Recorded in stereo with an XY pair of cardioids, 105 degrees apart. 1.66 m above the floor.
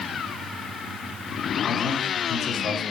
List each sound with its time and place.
1.7 s a man speaking: 55° left, 0.8 m